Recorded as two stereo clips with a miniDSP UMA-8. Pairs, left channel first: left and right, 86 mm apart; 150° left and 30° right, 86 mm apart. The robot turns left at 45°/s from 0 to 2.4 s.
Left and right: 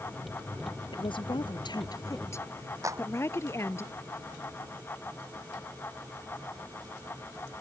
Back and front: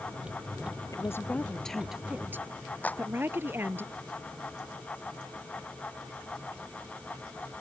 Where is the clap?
140° right.